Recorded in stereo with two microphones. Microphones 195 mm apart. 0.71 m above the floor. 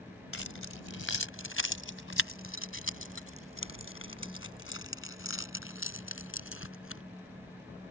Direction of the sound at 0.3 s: 80° left.